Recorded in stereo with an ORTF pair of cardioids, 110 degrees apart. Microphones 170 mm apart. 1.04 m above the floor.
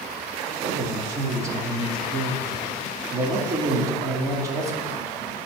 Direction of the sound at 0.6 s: 20° right.